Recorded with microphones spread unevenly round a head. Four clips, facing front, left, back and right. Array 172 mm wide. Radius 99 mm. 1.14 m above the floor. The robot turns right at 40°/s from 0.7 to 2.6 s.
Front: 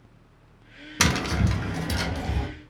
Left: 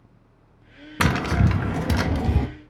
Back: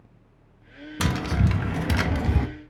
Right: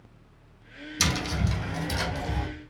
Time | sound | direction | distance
1.0 | tapping | 60° left | 0.8 m